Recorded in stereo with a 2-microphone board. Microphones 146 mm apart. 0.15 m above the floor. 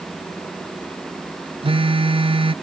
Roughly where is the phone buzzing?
Right.